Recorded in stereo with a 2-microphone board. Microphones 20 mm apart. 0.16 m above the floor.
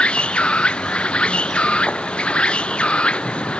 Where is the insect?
85° left.